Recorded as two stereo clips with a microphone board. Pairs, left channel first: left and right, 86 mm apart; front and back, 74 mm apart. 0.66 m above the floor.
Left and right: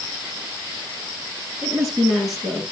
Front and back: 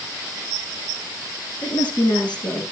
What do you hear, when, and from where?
1.6 s a woman speaking: straight ahead, 7 m